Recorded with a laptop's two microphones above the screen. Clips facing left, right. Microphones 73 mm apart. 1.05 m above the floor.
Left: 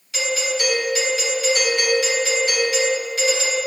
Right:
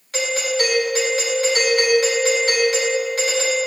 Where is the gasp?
I don't hear a gasp.